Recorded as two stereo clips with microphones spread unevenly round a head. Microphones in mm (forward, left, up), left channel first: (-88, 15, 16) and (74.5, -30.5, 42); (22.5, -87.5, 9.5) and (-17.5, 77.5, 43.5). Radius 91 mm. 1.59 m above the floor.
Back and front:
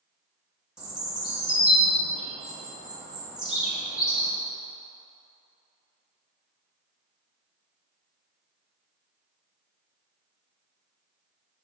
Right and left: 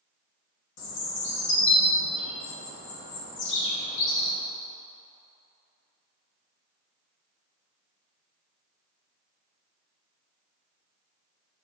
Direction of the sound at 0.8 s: 100° right.